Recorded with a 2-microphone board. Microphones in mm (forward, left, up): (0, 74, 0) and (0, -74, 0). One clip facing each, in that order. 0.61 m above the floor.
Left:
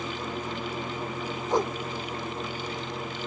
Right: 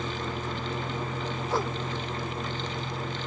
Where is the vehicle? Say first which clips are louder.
Even; 30° right (ahead or behind).